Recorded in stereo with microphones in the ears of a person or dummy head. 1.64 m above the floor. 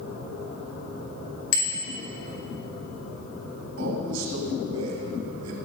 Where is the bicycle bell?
80° left, 4 m.